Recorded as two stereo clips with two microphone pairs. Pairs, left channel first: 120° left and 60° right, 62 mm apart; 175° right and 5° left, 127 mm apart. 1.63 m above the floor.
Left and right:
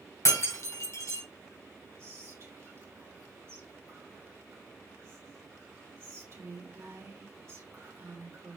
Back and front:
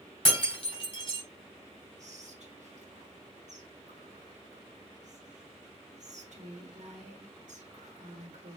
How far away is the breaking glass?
About 3 m.